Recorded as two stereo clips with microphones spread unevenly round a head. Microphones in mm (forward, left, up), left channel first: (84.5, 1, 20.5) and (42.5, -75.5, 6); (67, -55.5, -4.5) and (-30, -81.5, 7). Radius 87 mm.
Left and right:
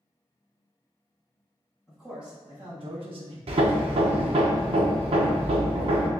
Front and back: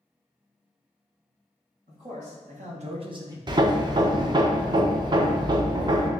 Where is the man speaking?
150° left, 1.4 m; by 3.4 s 110° right, 0.9 m.